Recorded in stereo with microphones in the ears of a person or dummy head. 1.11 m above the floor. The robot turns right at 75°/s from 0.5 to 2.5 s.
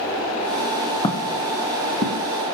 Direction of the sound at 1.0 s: 25° left (ahead or behind).